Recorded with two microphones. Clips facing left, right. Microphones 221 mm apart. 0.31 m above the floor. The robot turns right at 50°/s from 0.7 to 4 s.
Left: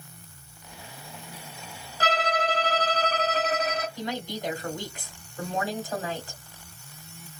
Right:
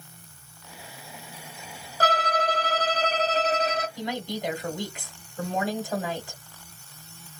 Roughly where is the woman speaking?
Centre.